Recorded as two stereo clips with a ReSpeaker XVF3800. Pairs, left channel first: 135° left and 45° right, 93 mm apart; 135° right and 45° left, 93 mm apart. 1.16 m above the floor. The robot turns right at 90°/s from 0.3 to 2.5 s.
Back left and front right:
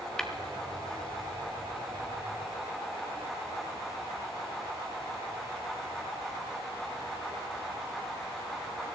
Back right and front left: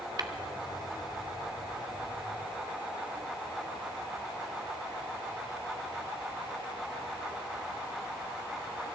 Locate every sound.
0.2 s tapping: 55° left, 1.2 m